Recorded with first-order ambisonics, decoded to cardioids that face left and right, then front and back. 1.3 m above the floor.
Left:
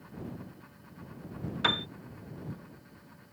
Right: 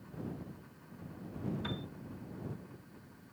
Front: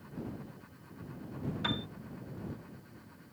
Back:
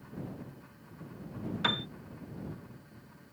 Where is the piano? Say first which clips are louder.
Left 20 dB, back 5 dB; 115° left.